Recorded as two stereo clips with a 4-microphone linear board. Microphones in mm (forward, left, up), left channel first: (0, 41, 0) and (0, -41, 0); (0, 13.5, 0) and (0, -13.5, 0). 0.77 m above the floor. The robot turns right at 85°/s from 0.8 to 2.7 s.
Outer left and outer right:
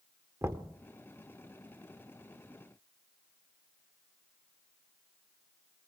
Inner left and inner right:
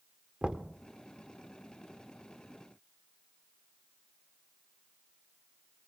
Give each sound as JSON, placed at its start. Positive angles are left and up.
{"t": 0.4, "sound": "knocking", "side_deg": -35, "distance_m": 1.3}